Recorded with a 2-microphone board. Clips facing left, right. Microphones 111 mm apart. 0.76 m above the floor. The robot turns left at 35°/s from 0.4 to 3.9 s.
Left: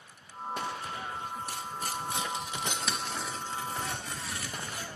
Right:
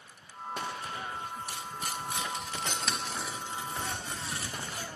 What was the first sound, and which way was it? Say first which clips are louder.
Tearing paper: left 2 dB; 50° left (ahead or behind).